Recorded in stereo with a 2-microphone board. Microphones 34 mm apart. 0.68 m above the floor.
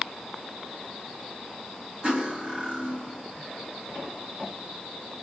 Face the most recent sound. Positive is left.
turn(degrees=-35)  # may be behind; listen again after turning